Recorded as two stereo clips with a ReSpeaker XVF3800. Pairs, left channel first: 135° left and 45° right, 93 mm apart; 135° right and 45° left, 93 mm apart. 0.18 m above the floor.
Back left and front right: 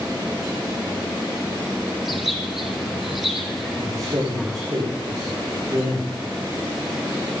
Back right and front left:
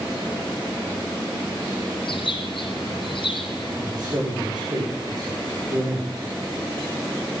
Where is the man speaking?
Straight ahead, 8 m.